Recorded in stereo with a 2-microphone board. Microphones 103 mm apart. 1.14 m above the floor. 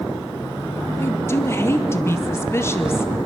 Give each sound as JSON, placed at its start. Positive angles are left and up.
{"t": 1.0, "sound": "a woman speaking", "side_deg": 25, "distance_m": 1.8}